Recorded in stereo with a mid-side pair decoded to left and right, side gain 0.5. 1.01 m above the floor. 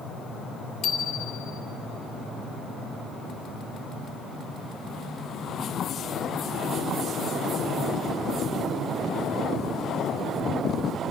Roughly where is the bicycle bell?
Left.